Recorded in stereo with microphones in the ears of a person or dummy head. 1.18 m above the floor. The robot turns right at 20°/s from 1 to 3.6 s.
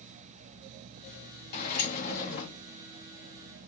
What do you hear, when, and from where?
1.5 s a sliding door: 55° left (ahead or behind), 1.2 m; by 2.5 s 75° left (ahead or behind), 1.2 m